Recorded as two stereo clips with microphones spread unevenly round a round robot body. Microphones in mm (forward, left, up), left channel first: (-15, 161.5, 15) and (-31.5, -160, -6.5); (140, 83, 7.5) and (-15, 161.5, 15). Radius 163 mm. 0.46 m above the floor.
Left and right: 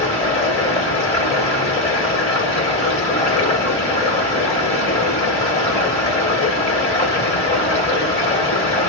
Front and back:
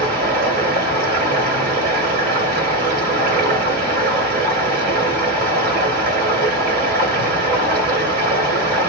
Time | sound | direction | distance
0.0 | running water | 160° left | 1.6 m